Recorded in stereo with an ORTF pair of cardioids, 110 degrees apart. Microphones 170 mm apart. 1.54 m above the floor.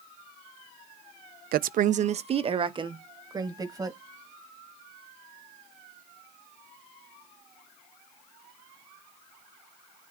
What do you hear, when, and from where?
1.5 s a woman speaking: 65° right, 0.6 m; by 4.0 s 20° right, 2 m